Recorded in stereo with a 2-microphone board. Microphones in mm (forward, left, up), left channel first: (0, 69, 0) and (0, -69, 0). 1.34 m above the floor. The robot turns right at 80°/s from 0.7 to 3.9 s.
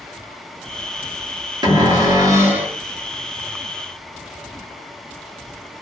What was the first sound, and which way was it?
A cupboard door, 100° right.